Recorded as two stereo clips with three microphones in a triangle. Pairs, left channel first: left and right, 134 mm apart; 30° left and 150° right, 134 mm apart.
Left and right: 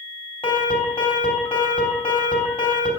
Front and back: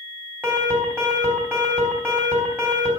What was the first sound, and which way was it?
An alarm, 135° left.